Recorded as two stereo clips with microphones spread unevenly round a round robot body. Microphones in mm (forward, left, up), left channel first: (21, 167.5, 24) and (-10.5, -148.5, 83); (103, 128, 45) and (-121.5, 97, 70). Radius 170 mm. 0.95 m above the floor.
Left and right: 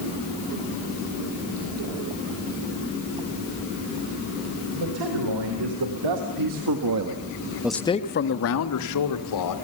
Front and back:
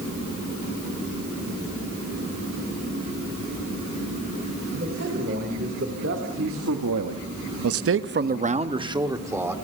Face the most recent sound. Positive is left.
turn(degrees=105)